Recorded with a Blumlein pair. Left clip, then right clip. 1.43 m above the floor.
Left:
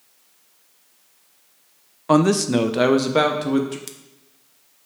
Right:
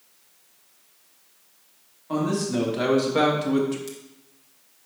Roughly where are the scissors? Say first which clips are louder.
Right 1 dB; ahead left.